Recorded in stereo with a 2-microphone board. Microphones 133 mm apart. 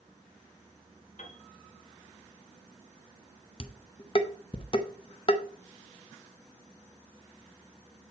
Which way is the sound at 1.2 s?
60° left (ahead or behind).